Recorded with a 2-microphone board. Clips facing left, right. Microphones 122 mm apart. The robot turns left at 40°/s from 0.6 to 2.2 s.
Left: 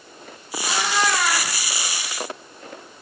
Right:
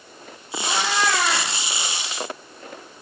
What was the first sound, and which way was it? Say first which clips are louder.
A cat meowing: even; 40° right.